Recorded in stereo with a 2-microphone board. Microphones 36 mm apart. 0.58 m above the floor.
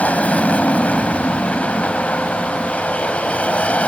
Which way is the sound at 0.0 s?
40° left (ahead or behind).